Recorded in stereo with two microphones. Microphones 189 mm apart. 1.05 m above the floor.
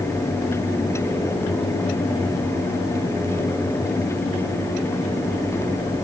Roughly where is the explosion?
I don't hear an explosion.